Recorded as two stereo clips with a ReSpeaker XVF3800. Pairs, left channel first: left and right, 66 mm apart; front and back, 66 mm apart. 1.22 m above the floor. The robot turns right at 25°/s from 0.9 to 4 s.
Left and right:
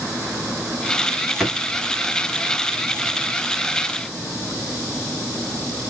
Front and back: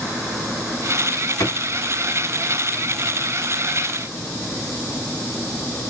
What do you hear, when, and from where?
1.4 s a drawer: straight ahead, 2.5 m; by 1.6 s 5° left, 2.5 m